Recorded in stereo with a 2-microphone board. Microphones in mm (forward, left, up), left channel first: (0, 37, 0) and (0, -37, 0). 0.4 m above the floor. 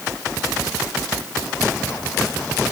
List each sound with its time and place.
Only background noise.